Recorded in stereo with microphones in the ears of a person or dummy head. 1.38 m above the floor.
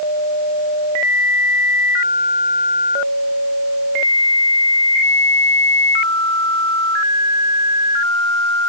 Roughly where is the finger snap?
No finger snap in this recording.